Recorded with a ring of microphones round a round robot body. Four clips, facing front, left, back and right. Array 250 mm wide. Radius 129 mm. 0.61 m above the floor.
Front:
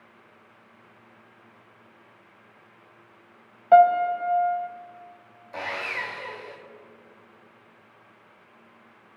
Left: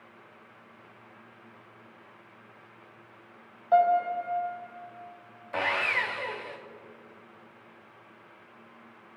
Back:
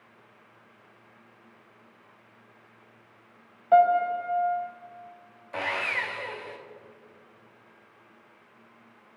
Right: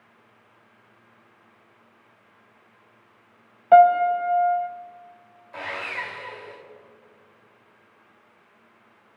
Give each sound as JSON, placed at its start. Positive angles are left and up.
{"t": 3.7, "sound": "a piano", "azimuth_deg": -60, "distance_m": 0.5}
{"t": 5.5, "sound": "sawing", "azimuth_deg": 105, "distance_m": 0.9}